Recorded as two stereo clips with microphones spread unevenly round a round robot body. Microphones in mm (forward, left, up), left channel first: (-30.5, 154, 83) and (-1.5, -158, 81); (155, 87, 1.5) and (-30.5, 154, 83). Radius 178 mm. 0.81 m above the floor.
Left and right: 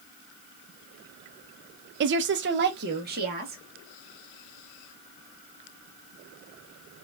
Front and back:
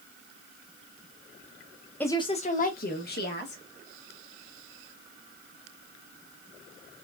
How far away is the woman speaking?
About 0.5 m.